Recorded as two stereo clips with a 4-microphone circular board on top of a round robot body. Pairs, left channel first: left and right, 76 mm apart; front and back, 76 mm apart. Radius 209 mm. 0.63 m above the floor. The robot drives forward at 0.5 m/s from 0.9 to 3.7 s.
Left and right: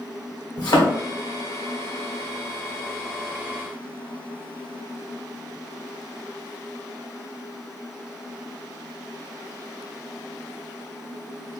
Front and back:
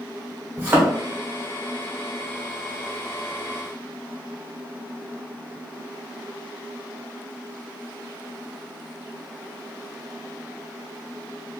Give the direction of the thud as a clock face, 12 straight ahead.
8 o'clock.